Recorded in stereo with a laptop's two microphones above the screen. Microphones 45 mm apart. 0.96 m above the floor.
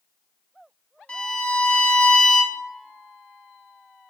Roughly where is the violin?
Left.